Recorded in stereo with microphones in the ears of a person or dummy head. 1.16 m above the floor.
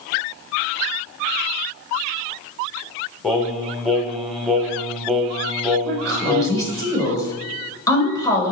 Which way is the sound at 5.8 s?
20° left (ahead or behind).